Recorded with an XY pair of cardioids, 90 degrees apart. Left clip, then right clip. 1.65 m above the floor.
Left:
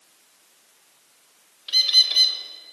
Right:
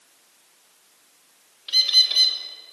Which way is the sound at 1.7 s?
5° left.